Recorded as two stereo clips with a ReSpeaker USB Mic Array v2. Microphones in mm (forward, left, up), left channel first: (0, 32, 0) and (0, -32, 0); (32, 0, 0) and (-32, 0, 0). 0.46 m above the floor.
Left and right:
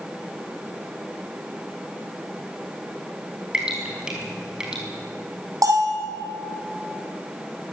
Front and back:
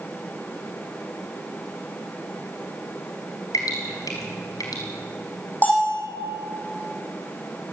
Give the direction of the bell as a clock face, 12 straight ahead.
2 o'clock.